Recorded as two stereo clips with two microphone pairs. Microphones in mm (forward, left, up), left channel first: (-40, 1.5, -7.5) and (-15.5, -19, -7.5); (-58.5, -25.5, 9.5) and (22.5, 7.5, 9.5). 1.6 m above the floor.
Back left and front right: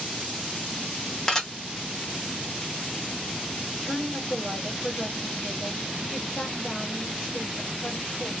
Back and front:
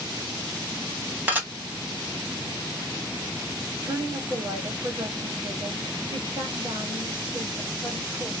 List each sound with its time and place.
1.3 s dishes clattering: 75° left, 1.0 m
3.8 s a woman speaking: 60° left, 1.3 m